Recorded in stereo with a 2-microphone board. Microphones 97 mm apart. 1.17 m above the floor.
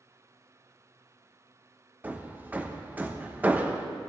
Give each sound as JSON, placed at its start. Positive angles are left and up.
{"t": 2.0, "sound": "hammering", "side_deg": -15, "distance_m": 0.8}